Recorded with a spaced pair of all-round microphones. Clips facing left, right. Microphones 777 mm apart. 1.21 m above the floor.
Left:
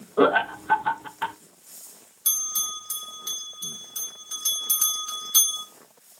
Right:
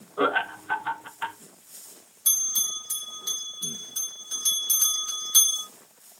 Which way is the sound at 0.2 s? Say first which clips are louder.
Left 7 dB; 65° left (ahead or behind).